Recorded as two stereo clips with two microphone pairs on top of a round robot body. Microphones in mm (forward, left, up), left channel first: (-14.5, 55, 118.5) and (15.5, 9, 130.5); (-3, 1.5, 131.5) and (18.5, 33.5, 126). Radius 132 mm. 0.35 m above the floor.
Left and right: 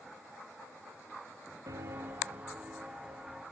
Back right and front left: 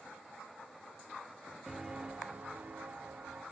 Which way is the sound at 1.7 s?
35° right.